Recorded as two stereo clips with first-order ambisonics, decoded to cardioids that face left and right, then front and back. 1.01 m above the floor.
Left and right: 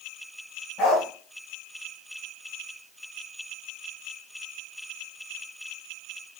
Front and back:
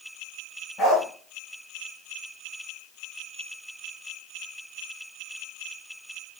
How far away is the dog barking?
About 3 m.